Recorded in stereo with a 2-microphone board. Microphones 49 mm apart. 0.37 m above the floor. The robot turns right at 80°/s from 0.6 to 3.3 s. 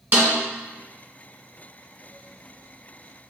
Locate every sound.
0.1 s a snare drum: 40° right (ahead or behind), 1.1 m